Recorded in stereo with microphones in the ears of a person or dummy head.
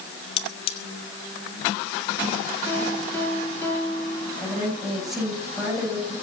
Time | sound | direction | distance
0.4 | cutlery clinking | 35° left (ahead or behind) | 1.1 m
2.7 | a piano | 10° left (ahead or behind) | 4.5 m
4.4 | a woman speaking | 5° right (ahead or behind) | 7.5 m